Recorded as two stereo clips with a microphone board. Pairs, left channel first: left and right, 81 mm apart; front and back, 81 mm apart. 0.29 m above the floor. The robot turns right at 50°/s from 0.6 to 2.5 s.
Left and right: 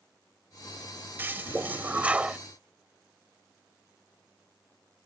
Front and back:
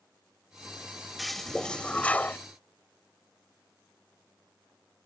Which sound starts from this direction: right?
A toilet flushing, at 1.2 s.